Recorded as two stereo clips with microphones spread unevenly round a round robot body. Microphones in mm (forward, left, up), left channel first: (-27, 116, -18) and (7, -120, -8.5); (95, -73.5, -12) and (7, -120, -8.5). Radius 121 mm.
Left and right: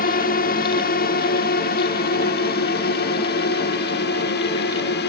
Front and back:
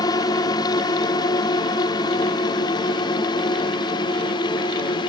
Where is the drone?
65° left.